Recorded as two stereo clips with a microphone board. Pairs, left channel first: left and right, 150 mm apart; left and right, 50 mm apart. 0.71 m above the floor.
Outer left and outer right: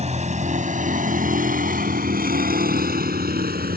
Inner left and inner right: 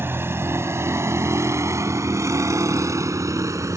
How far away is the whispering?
I don't hear whispering.